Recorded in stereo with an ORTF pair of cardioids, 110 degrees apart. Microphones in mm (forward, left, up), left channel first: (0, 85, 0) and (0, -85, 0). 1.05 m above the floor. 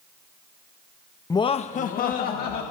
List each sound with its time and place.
1.3 s laughter: 20° left, 0.7 m; by 2.6 s 70° left, 1.9 m